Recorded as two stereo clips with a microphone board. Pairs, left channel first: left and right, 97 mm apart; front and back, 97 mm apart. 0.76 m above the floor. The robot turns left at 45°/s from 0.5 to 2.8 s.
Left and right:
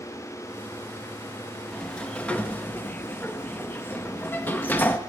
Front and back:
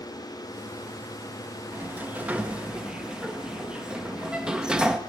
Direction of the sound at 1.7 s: 165° left.